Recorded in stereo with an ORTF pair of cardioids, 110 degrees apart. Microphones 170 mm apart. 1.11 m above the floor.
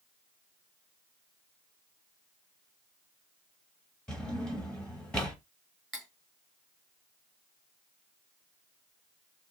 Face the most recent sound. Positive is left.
turn(degrees=0)